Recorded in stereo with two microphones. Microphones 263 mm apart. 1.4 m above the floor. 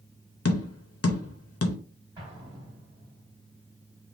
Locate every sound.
0.5 s tapping: 60° left (ahead or behind), 0.6 m
2.2 s an explosion: 15° right (ahead or behind), 1.9 m